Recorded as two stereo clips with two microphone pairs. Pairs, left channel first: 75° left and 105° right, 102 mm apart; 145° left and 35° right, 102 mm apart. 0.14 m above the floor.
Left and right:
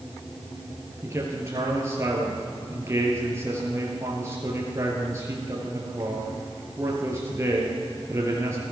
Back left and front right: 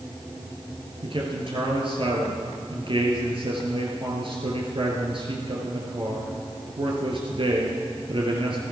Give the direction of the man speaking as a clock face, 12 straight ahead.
2 o'clock.